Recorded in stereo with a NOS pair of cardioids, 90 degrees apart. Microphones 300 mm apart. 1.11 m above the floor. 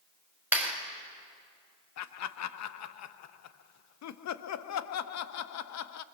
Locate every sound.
0.5 s a clap: 5° right, 4.5 m
2.0 s laughter: 60° left, 1.0 m